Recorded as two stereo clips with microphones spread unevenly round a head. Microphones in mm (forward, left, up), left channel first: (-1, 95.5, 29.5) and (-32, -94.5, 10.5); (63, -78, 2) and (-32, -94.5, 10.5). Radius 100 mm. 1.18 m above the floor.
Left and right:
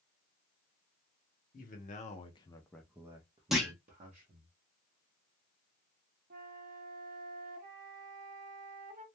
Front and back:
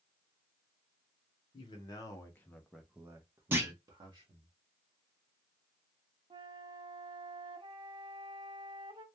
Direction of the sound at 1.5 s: 40° left.